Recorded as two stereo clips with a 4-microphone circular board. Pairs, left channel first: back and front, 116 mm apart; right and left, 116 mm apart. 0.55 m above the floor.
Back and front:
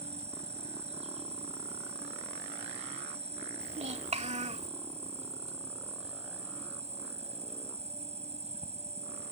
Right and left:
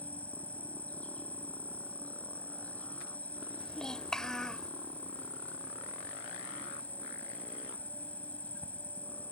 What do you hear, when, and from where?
0.0 s an insect: 15° right
3.6 s a child speaking: 5° right